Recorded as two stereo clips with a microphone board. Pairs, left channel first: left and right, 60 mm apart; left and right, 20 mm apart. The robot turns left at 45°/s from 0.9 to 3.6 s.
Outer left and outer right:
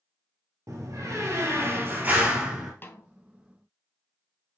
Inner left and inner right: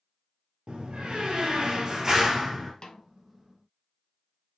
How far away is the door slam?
About 2.0 m.